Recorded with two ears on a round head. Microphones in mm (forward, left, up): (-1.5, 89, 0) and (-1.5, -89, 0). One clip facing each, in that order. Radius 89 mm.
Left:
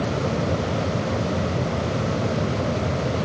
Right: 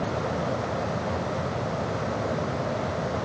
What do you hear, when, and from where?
Only background noise.